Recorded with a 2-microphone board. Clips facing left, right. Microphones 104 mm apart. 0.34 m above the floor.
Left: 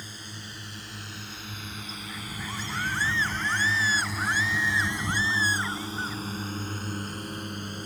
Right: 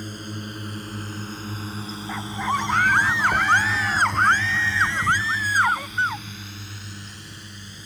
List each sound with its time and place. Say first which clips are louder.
0.0 s a drone: right 10 dB; 50° right (ahead or behind); by 7.9 s 50° left (ahead or behind)
2.1 s a scream: right 14 dB; 65° right (ahead or behind)